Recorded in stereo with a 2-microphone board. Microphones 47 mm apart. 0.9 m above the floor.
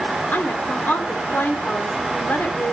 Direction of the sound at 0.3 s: 45° left (ahead or behind).